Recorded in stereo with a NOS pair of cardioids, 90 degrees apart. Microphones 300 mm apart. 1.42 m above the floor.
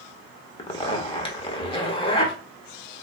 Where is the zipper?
20° left, 1.5 m.